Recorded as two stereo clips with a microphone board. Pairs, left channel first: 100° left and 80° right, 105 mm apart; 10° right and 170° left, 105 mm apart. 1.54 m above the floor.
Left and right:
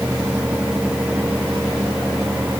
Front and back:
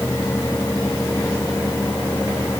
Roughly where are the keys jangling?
I don't hear keys jangling.